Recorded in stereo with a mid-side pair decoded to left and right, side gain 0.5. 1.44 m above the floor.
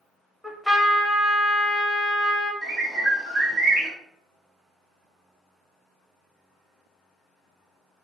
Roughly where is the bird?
Ahead right.